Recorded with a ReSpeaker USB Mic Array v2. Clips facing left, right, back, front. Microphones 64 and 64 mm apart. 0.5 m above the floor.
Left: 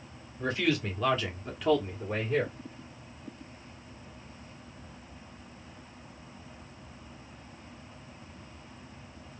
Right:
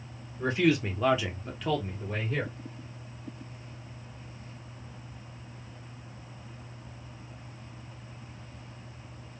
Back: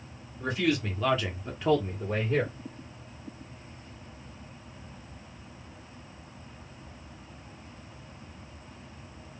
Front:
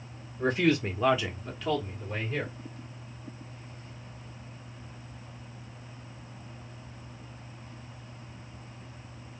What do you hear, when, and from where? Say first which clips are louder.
0.4 s a man speaking: right 4 dB, front 3 dB; 30° right, 1.3 m; by 2.5 s 160° left, 1.6 m